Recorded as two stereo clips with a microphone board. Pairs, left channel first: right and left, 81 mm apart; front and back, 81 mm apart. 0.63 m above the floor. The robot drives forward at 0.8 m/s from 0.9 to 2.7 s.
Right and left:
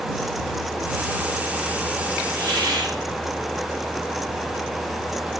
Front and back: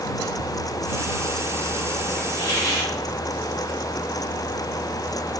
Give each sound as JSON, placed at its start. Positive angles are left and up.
{"t": 2.4, "sound": "a hiss", "azimuth_deg": 50, "distance_m": 6.0}